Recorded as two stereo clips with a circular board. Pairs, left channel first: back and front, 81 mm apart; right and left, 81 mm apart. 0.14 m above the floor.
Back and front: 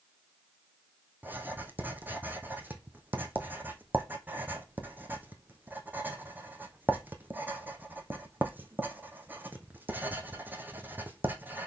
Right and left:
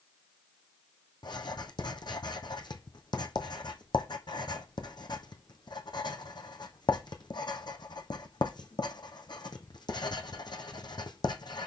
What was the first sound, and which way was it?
Writing, 65° right.